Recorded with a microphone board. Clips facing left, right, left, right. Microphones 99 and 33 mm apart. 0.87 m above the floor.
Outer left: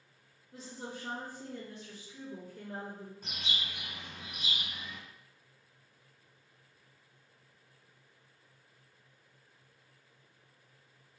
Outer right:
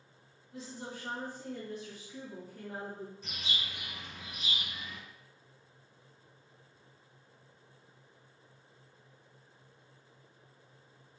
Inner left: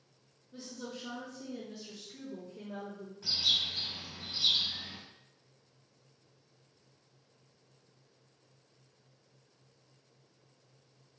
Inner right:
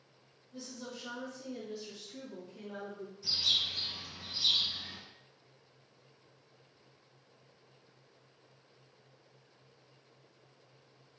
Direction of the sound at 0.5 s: 40° left (ahead or behind).